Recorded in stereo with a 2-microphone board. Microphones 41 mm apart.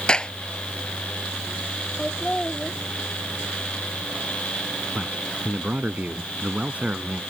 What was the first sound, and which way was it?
A clap, 20° left (ahead or behind).